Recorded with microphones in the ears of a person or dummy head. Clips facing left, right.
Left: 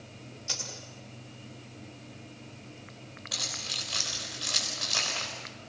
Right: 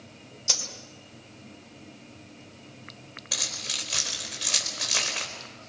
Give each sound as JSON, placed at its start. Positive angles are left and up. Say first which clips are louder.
{"t": 0.5, "sound": "a dropped coin", "louder": "right 5 dB", "side_deg": -75, "distance_m": 3.5}
{"t": 3.3, "sound": "keys jangling", "louder": "right 2 dB", "side_deg": -40, "distance_m": 4.5}